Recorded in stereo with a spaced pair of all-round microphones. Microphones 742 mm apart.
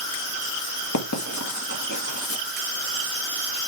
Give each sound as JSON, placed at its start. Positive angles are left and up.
{"t": 0.9, "sound": "writing", "side_deg": 25, "distance_m": 1.6}